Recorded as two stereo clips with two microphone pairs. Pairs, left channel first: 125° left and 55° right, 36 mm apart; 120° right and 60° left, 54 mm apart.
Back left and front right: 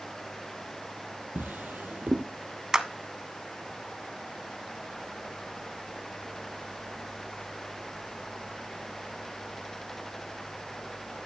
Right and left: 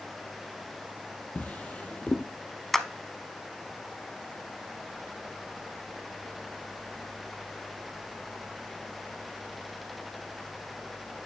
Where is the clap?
40° right, 0.8 m.